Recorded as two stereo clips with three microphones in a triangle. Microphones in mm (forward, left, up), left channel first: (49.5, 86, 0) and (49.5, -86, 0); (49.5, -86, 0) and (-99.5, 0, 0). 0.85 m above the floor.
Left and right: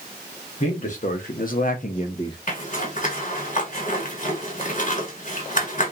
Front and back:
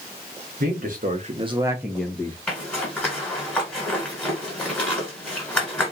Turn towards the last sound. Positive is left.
turn(degrees=55)